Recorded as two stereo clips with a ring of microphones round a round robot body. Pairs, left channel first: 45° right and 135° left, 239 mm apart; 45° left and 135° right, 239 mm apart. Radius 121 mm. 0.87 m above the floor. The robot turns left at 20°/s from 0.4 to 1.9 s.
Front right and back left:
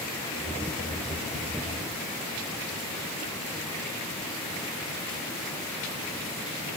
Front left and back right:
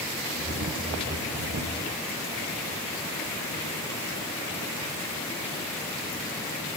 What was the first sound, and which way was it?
Only background noise.